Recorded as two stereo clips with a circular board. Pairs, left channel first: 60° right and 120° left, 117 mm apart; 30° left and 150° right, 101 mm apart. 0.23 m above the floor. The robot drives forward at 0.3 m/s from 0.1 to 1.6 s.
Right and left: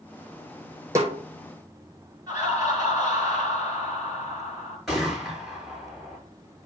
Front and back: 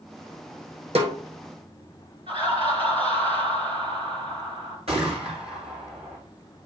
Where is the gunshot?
150° right, 4.5 m.